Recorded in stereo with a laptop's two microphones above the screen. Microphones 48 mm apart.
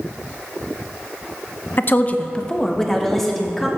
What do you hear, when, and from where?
1.8 s a woman speaking: 45° left (ahead or behind), 0.7 m; by 3.7 s centre (ahead or behind), 2 m